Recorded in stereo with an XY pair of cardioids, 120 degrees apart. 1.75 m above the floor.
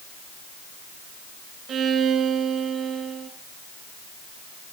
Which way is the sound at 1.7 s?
55° right.